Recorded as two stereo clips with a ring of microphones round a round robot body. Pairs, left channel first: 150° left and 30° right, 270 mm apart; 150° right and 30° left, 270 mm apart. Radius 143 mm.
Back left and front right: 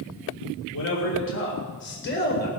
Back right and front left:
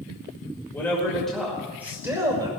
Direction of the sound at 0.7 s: 130° left.